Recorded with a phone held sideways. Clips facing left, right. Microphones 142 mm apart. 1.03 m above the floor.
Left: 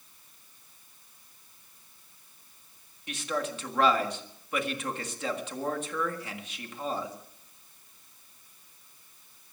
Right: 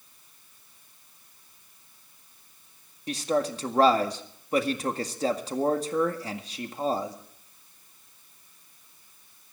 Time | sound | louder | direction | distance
3.1 | a man speaking | right 6 dB | 35° right (ahead or behind) | 1.7 m